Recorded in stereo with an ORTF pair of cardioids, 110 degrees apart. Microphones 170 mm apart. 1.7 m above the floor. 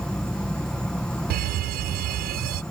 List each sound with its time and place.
0.0 s an insect: 5° left
1.3 s a fire alarm: 65° right